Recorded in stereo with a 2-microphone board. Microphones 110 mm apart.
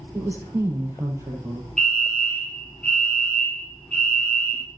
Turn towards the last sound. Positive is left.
turn(degrees=10)  # may be behind; listen again after turning